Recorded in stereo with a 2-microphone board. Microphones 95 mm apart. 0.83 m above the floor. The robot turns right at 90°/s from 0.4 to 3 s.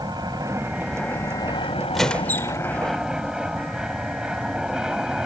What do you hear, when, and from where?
0.0 s an aircraft: 45° right; by 5.3 s 170° right
1.9 s a squeak: straight ahead; by 2.6 s 60° left